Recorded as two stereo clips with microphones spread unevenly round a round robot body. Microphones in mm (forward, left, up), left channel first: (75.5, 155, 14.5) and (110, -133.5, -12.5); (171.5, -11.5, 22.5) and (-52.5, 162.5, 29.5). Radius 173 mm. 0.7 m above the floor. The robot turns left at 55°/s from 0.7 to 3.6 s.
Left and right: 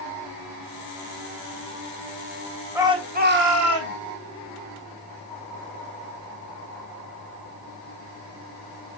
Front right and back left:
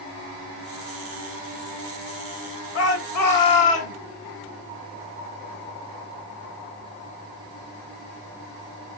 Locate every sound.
2.8 s a shout: straight ahead, 3 m; by 4.0 s 50° right, 3 m